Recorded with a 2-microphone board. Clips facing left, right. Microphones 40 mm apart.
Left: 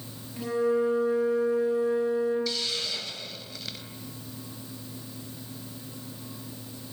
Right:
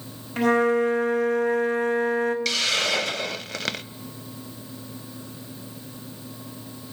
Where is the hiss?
75° right (ahead or behind), 0.7 m.